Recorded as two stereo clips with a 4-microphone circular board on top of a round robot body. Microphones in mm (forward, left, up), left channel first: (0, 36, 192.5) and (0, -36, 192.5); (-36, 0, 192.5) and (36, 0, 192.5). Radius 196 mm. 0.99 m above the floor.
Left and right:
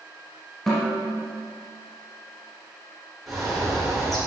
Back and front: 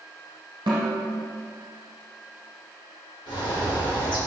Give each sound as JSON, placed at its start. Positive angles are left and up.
{"t": 0.7, "sound": "a snare drum", "azimuth_deg": 15, "distance_m": 1.0}
{"t": 3.3, "sound": "a bird", "azimuth_deg": 180, "distance_m": 1.6}